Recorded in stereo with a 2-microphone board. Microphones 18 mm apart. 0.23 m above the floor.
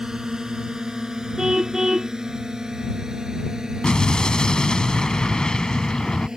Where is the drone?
30° right (ahead or behind); by 6.4 s 35° right (ahead or behind).